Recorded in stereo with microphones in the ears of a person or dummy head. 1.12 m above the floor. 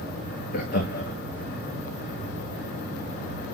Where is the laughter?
45° left (ahead or behind), 2.0 m.